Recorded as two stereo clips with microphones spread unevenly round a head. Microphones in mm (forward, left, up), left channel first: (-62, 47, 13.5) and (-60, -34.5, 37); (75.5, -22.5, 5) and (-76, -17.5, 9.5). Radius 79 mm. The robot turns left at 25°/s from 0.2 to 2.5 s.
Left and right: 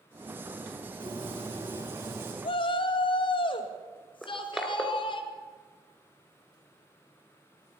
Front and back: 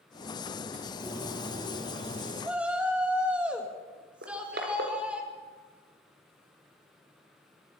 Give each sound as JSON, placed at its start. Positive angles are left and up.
{"t": 1.0, "sound": "a bird", "azimuth_deg": -105, "distance_m": 3.5}
{"t": 2.4, "sound": "a shout", "azimuth_deg": 95, "distance_m": 3.0}
{"t": 4.2, "sound": "crushing", "azimuth_deg": -170, "distance_m": 3.5}